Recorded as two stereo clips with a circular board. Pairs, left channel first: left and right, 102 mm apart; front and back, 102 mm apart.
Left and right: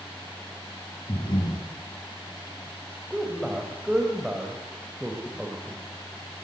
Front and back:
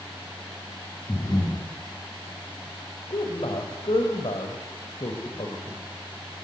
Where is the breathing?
50° left, 3.5 m.